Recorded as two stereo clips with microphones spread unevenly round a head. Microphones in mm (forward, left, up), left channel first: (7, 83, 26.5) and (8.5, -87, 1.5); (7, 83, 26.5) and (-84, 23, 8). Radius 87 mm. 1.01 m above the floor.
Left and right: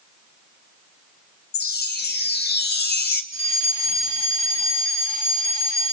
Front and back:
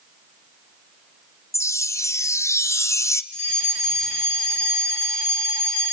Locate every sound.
1.5 s a chime: 100° left, 1.1 m
3.3 s a fire alarm: 35° left, 7 m